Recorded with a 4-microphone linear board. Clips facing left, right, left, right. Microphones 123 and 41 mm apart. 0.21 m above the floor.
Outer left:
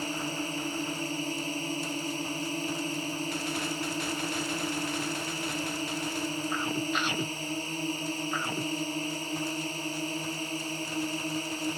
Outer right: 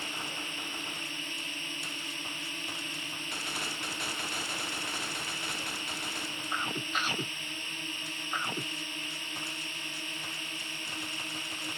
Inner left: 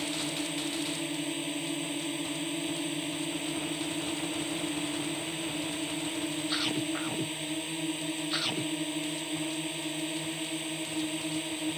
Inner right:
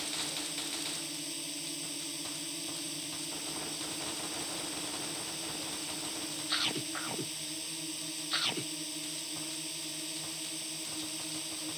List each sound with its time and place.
0.0 s a drone: 35° left (ahead or behind)